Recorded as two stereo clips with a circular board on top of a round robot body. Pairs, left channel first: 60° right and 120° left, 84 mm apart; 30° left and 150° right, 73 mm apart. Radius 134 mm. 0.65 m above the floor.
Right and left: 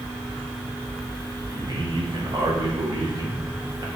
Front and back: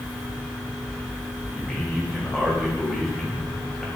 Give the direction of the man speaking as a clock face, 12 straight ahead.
8 o'clock.